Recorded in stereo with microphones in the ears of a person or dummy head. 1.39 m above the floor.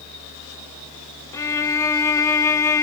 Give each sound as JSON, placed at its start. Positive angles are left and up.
{"t": 1.3, "sound": "a violin", "side_deg": 20, "distance_m": 0.6}